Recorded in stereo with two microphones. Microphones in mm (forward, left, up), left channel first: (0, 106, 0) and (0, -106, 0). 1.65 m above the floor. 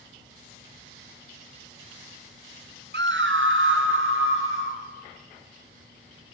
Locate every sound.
2.9 s a scream: 55° right (ahead or behind), 0.5 m; by 4.8 s 70° right (ahead or behind), 2 m